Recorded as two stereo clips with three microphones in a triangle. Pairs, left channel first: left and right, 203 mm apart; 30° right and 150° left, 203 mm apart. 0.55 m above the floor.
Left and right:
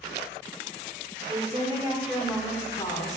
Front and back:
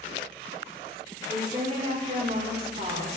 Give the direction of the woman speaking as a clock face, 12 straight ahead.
5 o'clock.